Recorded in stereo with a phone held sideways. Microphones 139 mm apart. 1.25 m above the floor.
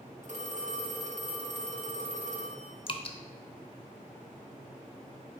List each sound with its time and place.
0.2 s a phone ringing: 60° right (ahead or behind), 1.4 m
2.9 s dripping: 40° left (ahead or behind), 0.6 m